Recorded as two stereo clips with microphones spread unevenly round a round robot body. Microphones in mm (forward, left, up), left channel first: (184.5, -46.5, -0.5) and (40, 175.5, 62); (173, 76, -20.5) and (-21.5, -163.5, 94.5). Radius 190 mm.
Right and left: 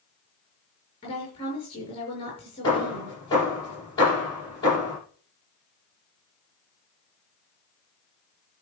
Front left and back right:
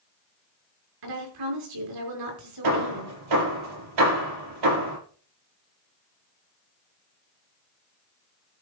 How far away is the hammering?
About 7.5 m.